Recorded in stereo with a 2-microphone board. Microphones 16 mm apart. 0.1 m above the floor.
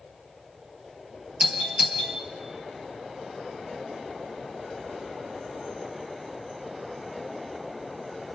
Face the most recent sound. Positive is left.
turn(degrees=-50)  # may be behind; listen again after turning